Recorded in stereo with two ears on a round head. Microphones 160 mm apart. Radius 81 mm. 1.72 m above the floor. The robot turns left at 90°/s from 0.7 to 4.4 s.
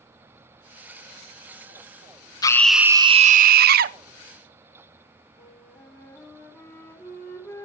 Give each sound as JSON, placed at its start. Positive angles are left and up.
{"t": 2.4, "sound": "a scream", "azimuth_deg": 25, "distance_m": 0.8}
{"t": 5.4, "sound": "a flute", "side_deg": 15, "distance_m": 4.5}